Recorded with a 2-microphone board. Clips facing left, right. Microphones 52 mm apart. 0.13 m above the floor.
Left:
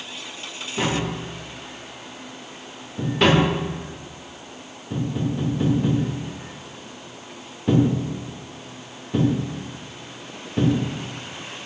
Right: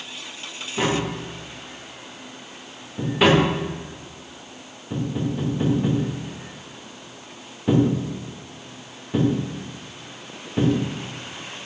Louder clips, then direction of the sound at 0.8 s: Right 1 dB; 10° right (ahead or behind).